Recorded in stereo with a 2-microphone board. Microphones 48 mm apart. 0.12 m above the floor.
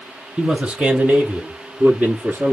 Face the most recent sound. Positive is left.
turn(degrees=-40)  # may be behind; listen again after turning